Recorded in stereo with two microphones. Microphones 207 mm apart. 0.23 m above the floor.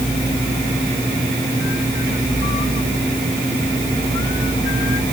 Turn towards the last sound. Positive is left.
No sound to turn to.